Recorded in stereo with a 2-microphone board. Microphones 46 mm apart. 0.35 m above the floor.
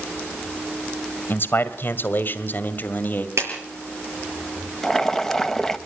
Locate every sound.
1.3 s a man speaking: 50° left (ahead or behind), 1.8 m; by 3.3 s 40° left (ahead or behind), 1.9 m
3.4 s a clap: 80° right, 6 m
4.8 s boiling: 10° left (ahead or behind), 0.9 m